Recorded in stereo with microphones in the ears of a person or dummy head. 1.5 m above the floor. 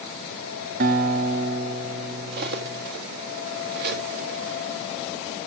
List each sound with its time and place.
0.8 s a guitar: 40° right (ahead or behind), 0.7 m
2.3 s cutlery clinking: 50° right (ahead or behind), 1.3 m